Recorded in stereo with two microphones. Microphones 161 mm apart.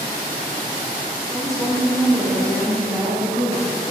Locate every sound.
1.3 s a woman speaking: 5° left (ahead or behind), 1.4 m; by 3.7 s 20° right (ahead or behind), 2.5 m